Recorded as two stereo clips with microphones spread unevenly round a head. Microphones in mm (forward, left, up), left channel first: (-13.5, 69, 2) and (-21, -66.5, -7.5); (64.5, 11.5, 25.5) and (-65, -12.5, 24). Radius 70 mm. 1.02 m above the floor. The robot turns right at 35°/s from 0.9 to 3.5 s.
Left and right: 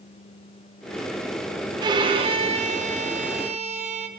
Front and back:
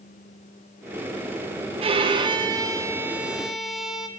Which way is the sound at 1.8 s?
140° right.